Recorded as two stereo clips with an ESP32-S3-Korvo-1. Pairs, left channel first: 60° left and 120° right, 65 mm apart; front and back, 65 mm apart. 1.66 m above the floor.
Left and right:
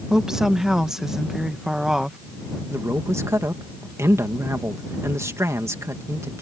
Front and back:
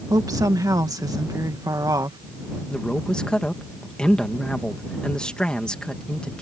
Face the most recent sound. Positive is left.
turn(degrees=-75)